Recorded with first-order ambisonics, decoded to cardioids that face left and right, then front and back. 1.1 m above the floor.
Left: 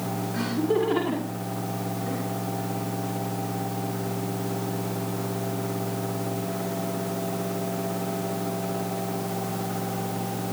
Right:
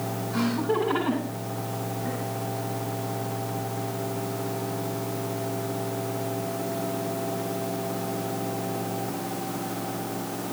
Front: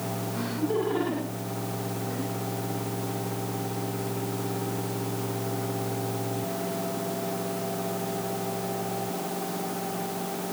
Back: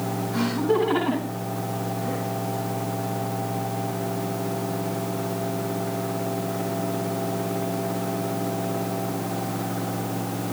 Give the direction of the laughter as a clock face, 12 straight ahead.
4 o'clock.